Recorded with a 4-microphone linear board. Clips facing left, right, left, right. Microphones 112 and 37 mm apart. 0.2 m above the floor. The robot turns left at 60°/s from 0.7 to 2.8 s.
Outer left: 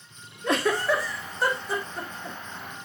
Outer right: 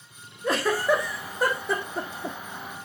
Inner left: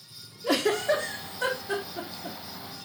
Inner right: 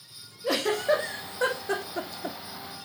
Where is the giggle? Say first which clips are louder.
Outer right 1 dB, even; centre (ahead or behind), 1.7 m; by 2.4 s 80° right, 1.7 m.